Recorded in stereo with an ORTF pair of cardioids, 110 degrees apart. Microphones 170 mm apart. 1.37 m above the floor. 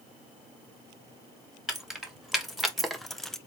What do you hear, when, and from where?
1.7 s keys jangling: straight ahead, 2.0 m